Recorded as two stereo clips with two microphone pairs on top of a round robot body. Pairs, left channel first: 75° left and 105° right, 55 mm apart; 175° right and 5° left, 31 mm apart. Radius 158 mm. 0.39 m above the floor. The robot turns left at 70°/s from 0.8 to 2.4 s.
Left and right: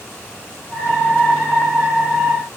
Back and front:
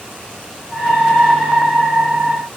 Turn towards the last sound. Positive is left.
No sound to turn to.